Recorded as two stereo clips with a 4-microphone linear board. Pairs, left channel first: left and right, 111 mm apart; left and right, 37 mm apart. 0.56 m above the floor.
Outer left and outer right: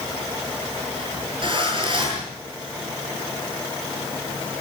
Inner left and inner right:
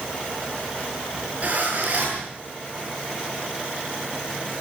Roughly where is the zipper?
Right.